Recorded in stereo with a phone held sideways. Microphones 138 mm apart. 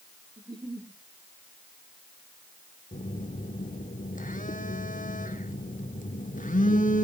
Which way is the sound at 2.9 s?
75° left (ahead or behind).